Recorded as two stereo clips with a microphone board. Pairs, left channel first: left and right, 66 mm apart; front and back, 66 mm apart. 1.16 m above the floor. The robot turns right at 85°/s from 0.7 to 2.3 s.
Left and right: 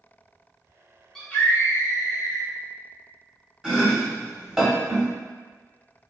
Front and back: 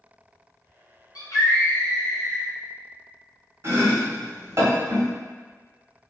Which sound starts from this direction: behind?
Chopping, at 3.6 s.